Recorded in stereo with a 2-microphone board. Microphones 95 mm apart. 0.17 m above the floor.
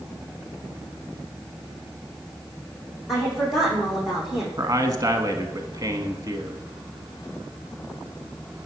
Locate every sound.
3.1 s a woman speaking: 5° right (ahead or behind), 7.5 m
4.6 s a man speaking: 35° right (ahead or behind), 1.4 m